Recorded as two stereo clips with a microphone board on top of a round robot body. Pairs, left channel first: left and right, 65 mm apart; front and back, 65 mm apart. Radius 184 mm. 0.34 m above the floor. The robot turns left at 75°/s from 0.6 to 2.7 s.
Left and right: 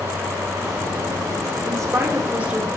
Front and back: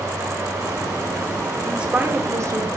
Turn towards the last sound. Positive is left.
turn(degrees=-175)